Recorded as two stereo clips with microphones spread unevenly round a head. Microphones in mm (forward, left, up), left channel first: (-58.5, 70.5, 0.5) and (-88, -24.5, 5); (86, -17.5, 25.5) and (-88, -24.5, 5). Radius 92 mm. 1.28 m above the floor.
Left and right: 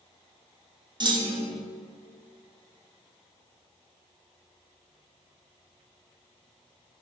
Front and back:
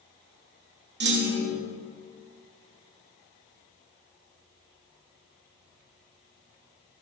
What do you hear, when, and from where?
1.0 s a clunk: 150° right, 1.6 m